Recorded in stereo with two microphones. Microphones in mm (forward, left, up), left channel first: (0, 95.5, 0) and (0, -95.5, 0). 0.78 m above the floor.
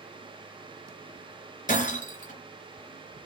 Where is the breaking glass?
45° left (ahead or behind), 3 m.